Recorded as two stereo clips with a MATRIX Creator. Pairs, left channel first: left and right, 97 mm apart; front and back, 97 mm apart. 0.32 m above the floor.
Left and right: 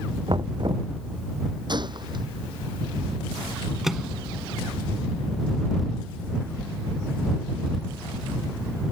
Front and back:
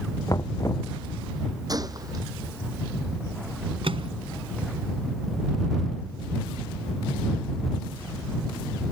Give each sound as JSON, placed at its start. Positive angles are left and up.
{"t": 0.3, "sound": "knocking", "azimuth_deg": -55}
{"t": 1.7, "sound": "a gunshot", "azimuth_deg": -130}
{"t": 3.8, "sound": "a microwave", "azimuth_deg": -175}